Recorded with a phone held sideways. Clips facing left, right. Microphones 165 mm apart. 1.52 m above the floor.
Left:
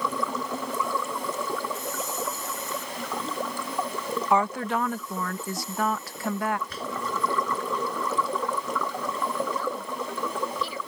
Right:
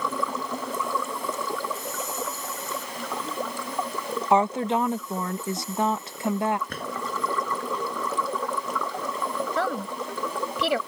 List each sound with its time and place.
4.3 s a woman speaking: 25° right (ahead or behind)
6.7 s a drawer: 55° right (ahead or behind)
9.6 s a woman speaking: 80° right